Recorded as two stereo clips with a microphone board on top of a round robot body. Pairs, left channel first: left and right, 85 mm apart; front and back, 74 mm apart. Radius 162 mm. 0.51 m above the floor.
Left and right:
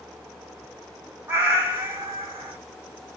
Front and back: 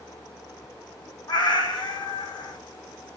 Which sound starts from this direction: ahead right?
A cat meowing, at 1.3 s.